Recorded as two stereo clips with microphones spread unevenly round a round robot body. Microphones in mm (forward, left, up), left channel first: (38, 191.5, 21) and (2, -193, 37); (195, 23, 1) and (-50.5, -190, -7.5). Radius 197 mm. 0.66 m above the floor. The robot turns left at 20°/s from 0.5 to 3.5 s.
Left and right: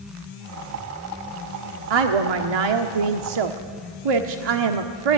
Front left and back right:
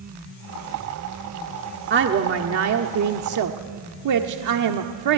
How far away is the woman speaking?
About 1.4 m.